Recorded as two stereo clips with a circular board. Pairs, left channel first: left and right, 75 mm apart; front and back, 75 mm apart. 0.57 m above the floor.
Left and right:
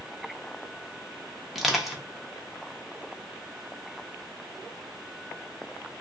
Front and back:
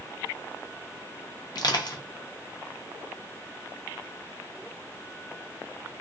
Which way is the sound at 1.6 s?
5° right.